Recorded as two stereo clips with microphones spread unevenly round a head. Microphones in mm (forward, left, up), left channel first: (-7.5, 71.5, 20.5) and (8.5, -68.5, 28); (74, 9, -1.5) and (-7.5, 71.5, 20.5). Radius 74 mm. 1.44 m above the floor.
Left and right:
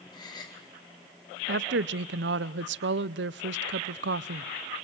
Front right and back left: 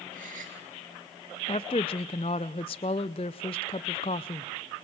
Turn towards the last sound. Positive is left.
turn(degrees=-90)